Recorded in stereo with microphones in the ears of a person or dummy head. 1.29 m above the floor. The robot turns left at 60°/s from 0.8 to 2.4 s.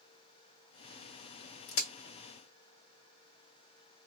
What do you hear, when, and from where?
1.7 s a crack: 60° left (ahead or behind), 1.8 m; by 1.9 s 65° left (ahead or behind), 1.8 m